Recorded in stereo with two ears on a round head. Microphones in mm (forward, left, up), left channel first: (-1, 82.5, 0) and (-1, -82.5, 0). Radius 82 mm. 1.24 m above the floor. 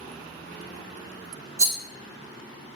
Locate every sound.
1.6 s a rattle: 20° right (ahead or behind), 0.6 m